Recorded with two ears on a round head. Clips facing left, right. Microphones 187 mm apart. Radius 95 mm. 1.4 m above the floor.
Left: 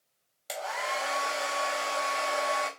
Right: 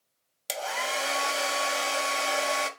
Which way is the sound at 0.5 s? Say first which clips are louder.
Right 2 dB; 35° right (ahead or behind).